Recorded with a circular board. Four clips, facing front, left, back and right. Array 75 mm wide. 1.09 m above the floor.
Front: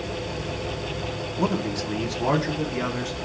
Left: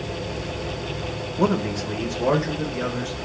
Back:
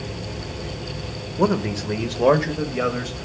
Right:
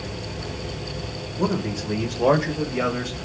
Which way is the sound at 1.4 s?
155° left.